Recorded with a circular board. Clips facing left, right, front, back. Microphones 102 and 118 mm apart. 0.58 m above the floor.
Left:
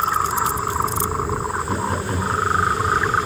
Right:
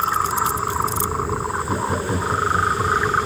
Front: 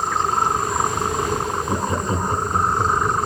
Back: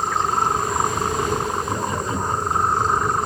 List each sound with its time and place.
1.7 s laughter: 15° right, 0.9 m; by 3.2 s 25° right, 1.6 m